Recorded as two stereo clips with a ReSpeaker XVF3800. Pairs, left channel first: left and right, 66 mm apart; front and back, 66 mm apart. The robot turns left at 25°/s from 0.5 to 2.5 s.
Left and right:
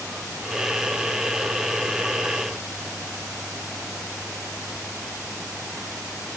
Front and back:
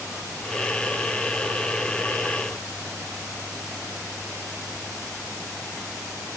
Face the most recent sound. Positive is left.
No sound to turn to.